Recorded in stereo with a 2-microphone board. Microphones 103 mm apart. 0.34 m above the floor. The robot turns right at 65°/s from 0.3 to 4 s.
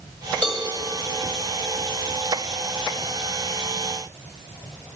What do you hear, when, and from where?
0.4 s a cowbell: 10° right (ahead or behind), 1.7 m; by 0.6 s 5° right (ahead or behind), 1.7 m